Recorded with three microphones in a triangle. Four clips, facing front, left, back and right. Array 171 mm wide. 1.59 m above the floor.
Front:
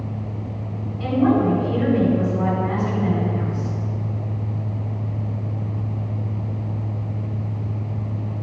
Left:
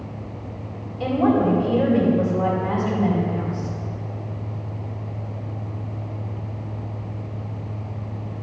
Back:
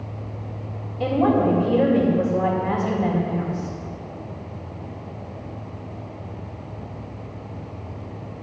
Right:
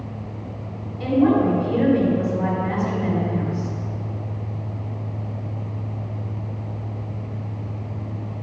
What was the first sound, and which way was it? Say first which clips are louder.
A woman speaking: right 1 dB, front 1 dB; 165° left.